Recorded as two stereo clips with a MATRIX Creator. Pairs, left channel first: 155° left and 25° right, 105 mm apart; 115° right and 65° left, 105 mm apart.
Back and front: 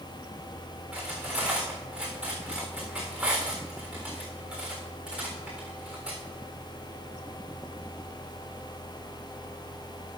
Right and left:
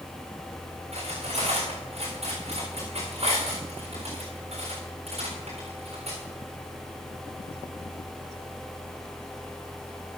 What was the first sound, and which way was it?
Cutlery clinking, 60° left.